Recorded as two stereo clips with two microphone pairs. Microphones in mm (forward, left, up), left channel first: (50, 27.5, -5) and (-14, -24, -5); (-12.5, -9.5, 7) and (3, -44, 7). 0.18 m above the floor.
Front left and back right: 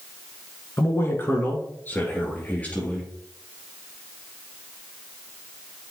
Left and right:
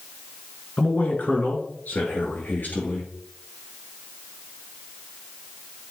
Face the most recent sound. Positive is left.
turn(degrees=110)